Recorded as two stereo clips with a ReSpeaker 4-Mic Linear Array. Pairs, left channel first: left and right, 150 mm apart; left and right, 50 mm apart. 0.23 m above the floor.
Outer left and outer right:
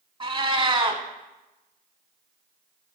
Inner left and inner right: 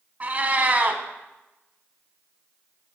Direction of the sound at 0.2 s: 35° right (ahead or behind).